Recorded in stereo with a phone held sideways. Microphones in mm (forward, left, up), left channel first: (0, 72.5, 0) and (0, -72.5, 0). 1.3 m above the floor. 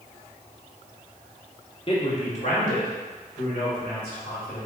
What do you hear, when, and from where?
1.9 s a man speaking: 35° left (ahead or behind), 1.2 m; by 4.7 s 85° left, 2.5 m